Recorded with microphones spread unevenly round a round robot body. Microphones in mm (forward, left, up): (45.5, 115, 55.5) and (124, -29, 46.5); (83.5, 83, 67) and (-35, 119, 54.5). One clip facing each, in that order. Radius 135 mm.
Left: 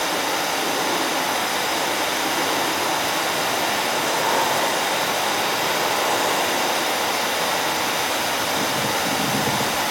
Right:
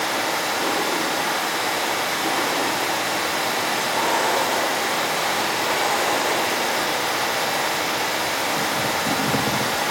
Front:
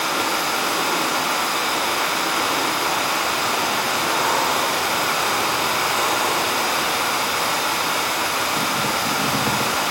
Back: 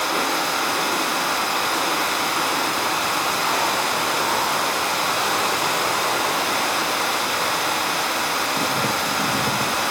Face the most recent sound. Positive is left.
turn(degrees=55)